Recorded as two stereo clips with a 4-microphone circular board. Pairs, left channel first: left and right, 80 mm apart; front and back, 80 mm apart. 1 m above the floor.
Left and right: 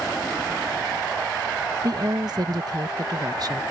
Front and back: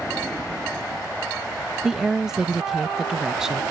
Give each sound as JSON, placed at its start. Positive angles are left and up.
{"t": 1.8, "sound": "a woman speaking", "azimuth_deg": -95}